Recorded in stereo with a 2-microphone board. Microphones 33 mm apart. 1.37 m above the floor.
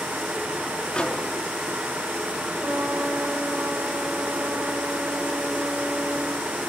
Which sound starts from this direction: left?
A microwave, at 0.9 s.